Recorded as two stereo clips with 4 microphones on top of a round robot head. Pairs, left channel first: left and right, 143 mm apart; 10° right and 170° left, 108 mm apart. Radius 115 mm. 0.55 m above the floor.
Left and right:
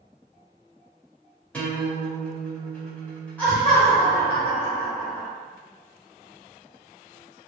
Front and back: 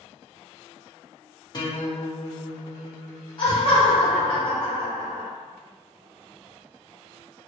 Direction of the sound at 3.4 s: 15° left.